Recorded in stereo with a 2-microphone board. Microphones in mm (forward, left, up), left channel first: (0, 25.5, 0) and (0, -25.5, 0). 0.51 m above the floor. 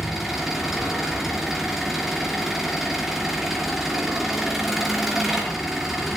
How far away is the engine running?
About 4.5 m.